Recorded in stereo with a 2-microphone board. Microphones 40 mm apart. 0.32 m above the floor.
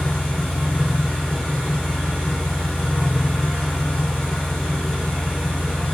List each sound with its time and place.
0.0 s an engine running: 5° left (ahead or behind), 3 m